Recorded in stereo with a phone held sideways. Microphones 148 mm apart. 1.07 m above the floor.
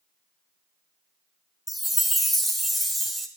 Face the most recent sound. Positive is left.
turn(degrees=0)  # may be behind; listen again after turning